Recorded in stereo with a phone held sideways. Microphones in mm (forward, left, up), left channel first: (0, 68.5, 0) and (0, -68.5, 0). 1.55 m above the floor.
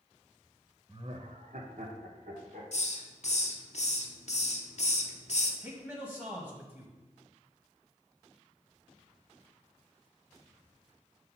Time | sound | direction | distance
0.9 | laughter | 35° right (ahead or behind) | 0.6 m
2.7 | a hiss | 55° left (ahead or behind) | 0.6 m
5.6 | a man speaking | 15° right (ahead or behind) | 1.5 m